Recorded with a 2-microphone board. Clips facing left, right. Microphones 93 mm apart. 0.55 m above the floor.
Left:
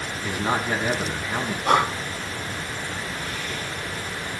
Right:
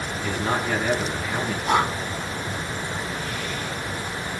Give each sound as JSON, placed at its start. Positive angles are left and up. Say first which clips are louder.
{"t": 0.2, "sound": "a man speaking", "louder": "even", "side_deg": 20, "distance_m": 4.5}
{"t": 1.6, "sound": "breathing", "louder": "left 2 dB", "side_deg": 75, "distance_m": 8.0}